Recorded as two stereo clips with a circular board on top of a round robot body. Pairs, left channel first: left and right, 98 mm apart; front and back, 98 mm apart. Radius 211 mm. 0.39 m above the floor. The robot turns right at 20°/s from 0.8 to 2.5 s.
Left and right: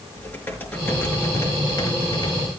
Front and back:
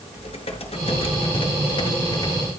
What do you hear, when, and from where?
0.1 s typing on a keyboard: 20° left, 5.5 m; by 2.5 s 55° left, 5.5 m